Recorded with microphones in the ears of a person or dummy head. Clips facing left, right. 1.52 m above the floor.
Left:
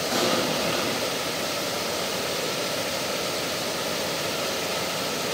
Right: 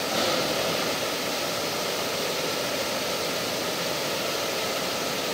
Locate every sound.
0.1 s an explosion: 50° left (ahead or behind), 8.5 m